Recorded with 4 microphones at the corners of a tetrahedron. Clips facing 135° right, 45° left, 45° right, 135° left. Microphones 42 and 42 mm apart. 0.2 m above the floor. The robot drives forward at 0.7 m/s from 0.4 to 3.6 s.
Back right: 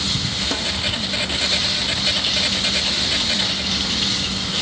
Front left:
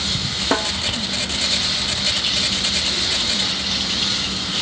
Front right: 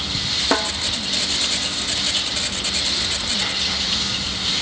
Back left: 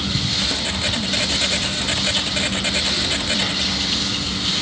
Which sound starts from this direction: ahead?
A snare drum, at 0.5 s.